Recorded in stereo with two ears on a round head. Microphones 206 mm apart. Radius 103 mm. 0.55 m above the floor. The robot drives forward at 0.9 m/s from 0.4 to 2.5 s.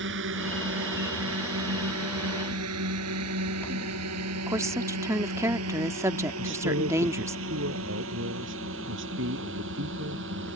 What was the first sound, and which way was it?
A drone, 60° right (ahead or behind).